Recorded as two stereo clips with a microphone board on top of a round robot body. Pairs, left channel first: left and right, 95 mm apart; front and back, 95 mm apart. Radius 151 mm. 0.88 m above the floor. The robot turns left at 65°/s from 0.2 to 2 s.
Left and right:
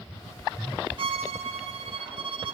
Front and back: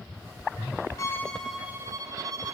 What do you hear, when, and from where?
1.0 s a violin: 60° right, 0.7 m; by 2.6 s 125° right, 0.7 m